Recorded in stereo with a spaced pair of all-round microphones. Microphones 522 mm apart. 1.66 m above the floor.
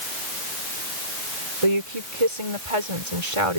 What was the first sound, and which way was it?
A woman speaking, 75° right (ahead or behind).